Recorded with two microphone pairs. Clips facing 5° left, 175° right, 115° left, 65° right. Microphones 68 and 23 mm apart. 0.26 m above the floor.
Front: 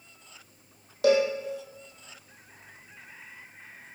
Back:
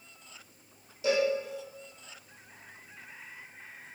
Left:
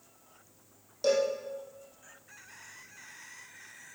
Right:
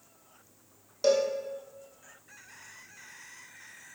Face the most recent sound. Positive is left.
turn(degrees=5)